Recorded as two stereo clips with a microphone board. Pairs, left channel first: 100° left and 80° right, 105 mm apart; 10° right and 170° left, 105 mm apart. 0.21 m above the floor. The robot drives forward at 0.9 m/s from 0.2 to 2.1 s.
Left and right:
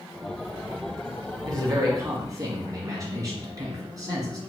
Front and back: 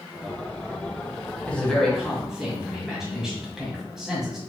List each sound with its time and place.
1.4 s a man speaking: 80° right, 1.9 m; by 4.4 s 105° right, 1.9 m